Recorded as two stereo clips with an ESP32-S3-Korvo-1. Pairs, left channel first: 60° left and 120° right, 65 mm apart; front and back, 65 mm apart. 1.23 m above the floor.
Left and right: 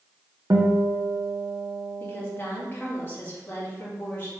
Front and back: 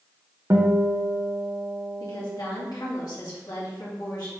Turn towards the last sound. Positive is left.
turn(degrees=5)